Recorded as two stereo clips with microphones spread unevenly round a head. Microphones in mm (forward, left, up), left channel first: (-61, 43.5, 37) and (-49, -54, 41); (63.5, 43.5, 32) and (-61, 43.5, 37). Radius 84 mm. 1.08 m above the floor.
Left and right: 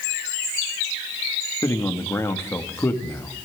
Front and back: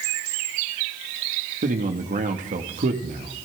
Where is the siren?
No siren in this recording.